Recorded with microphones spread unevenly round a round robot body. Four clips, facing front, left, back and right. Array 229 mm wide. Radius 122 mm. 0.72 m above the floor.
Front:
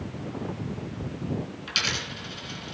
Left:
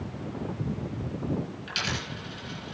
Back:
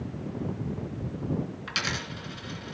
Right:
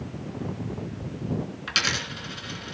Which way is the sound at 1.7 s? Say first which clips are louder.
Right 3 dB, even; 105° right.